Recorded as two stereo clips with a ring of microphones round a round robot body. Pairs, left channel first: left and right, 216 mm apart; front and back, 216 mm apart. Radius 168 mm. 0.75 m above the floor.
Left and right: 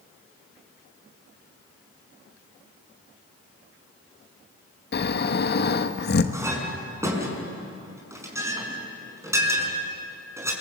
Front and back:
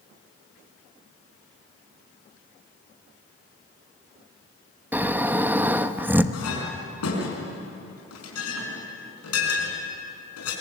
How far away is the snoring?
About 1.2 m.